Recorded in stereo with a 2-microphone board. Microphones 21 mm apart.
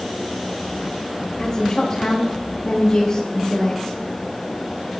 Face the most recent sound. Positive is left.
turn(degrees=30)  # may be behind; listen again after turning